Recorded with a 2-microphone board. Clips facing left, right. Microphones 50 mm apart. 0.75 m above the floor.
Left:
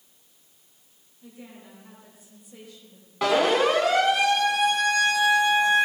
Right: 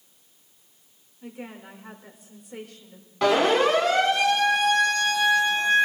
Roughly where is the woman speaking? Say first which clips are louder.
Right 6 dB; right.